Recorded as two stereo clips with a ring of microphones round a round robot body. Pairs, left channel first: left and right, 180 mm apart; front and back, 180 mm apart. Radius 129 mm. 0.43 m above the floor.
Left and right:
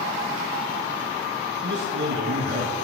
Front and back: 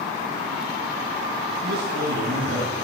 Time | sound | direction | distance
1.6 | a man speaking | 130° right | 6 m